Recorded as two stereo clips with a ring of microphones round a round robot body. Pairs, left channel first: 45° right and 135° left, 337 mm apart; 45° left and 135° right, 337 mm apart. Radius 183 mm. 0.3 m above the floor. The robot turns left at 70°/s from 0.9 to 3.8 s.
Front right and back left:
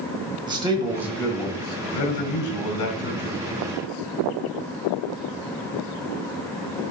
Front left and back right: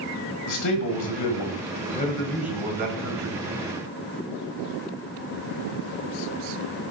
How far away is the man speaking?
About 1.7 m.